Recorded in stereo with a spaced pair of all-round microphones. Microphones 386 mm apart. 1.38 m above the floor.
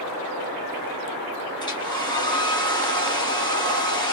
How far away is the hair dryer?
About 1.1 m.